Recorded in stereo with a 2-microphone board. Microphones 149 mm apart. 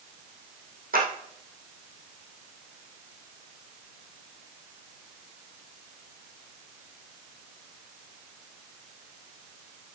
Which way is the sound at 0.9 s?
75° right (ahead or behind).